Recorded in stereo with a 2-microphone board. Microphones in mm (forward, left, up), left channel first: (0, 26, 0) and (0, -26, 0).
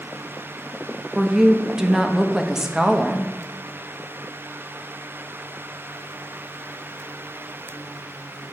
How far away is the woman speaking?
About 0.6 m.